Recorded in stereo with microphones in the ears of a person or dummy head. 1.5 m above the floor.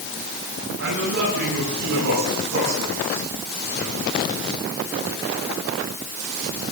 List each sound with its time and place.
0.8 s a man speaking: 70° right (ahead or behind), 9.5 m; by 4.7 s 50° right (ahead or behind), 13.5 m